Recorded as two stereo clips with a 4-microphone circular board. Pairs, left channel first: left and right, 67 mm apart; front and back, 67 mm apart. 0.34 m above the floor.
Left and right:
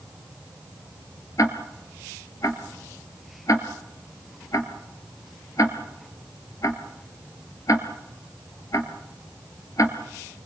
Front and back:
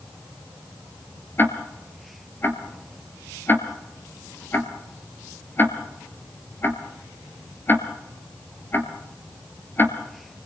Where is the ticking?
55° left, 2 m.